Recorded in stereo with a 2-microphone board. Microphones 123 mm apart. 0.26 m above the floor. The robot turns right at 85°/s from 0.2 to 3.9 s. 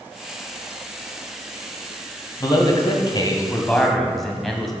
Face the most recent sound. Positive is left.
turn(degrees=175)